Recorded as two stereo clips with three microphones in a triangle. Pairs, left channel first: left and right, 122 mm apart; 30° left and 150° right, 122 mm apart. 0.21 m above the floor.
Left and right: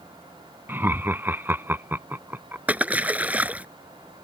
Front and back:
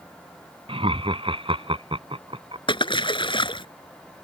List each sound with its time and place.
0.7 s laughter: 160° right
2.7 s a splash: 15° right